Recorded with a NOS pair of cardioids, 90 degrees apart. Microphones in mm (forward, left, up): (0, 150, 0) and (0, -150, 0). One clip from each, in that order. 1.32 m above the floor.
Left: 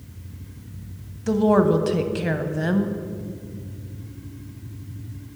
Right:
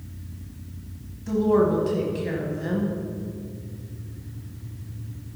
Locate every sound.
1.3 s a woman speaking: 50° left, 0.9 m